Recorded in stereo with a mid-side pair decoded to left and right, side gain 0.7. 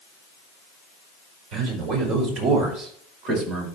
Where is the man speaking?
55° right, 5 m; by 3.7 s 45° right, 5.5 m.